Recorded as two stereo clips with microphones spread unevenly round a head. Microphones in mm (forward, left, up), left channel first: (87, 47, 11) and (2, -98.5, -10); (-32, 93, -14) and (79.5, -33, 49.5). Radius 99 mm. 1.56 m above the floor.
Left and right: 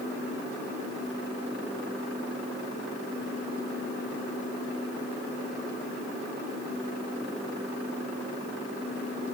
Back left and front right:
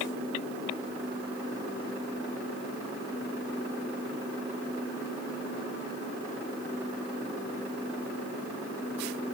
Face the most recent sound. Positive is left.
No sound to turn to.